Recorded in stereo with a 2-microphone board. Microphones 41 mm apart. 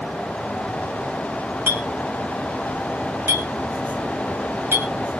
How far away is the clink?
About 4 m.